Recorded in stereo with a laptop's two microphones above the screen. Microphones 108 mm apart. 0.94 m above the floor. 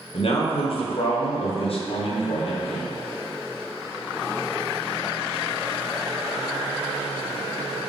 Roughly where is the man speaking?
Left.